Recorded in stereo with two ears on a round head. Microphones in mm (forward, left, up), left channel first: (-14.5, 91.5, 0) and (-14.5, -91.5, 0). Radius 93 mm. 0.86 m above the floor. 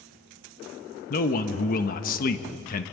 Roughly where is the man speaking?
Left.